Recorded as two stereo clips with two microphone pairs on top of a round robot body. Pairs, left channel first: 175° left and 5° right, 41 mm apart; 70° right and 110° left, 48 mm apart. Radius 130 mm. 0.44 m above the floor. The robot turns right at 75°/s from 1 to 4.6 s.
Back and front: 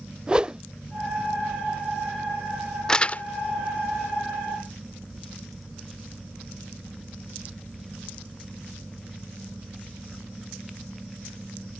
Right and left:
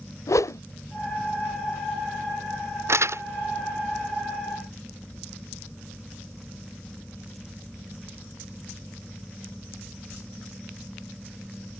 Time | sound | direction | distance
0.3 | a whoosh | 75° right | ?
2.9 | crumpling | 100° left | ?